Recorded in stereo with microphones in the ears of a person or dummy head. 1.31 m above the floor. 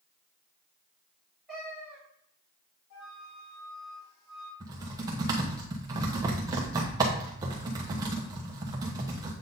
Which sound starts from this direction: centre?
A cat meowing, at 1.5 s.